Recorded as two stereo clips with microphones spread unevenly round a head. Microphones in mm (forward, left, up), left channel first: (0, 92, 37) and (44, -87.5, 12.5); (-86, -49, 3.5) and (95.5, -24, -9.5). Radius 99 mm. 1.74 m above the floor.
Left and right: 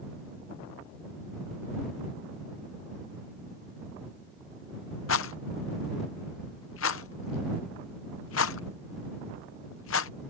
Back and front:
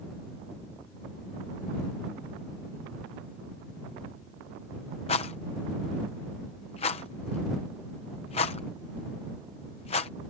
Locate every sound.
5.1 s a rattle: 125° left